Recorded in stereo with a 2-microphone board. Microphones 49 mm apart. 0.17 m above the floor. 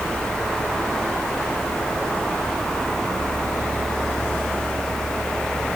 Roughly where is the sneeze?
No sneeze in this recording.